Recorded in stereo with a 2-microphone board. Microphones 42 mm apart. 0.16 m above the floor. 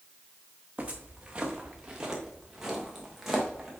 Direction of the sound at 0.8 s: 30° right (ahead or behind).